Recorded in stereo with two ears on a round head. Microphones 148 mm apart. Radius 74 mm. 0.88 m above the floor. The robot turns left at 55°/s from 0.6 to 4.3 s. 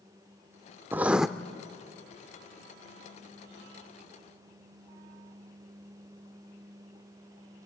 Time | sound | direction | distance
0.9 | writing | 15° right (ahead or behind) | 0.5 m